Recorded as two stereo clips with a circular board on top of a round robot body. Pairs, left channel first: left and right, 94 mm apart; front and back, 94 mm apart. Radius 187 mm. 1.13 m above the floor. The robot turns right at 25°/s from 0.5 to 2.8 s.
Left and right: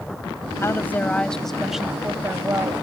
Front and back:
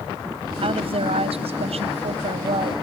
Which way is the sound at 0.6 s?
155° left.